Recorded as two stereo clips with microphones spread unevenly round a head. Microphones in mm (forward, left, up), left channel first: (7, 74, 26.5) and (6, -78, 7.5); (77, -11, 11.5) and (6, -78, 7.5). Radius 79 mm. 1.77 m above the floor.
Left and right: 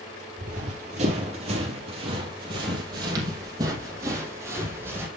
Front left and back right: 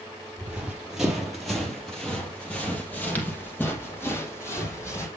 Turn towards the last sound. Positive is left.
turn(degrees=-10)